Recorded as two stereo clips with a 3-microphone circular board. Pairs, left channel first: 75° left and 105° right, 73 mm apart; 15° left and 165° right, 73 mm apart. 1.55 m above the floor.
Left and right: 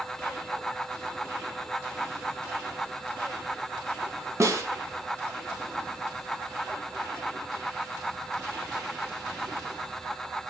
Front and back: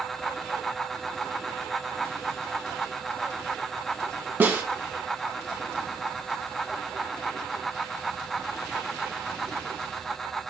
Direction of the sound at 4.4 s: 115° right.